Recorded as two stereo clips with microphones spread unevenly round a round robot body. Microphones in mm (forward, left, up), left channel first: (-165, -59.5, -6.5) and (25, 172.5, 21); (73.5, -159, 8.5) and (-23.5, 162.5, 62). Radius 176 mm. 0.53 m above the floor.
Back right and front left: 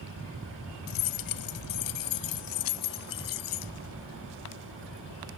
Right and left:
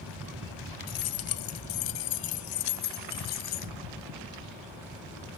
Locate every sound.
0.9 s keys jangling: 115° right; by 3.7 s 135° right